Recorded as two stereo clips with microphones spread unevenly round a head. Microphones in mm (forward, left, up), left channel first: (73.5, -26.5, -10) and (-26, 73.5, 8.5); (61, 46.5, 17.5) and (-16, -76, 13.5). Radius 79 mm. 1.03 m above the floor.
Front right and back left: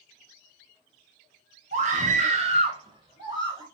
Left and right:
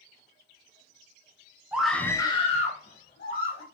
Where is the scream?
165° left, 1.0 m; by 3.6 s 70° left, 2 m.